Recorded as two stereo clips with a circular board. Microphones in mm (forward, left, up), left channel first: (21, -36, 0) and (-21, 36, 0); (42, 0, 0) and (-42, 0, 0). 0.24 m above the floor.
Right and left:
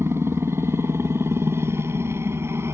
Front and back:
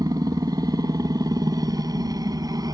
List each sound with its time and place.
0.0 s a helicopter: 165° left